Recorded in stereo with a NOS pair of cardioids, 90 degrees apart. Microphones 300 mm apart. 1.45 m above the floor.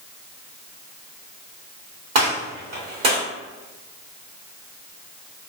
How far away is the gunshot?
About 1.3 m.